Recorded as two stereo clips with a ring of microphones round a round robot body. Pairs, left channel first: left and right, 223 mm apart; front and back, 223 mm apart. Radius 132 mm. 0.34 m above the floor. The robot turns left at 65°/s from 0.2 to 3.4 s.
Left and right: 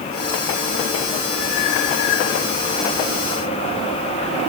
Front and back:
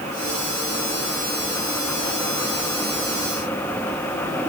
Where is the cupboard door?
I don't hear a cupboard door.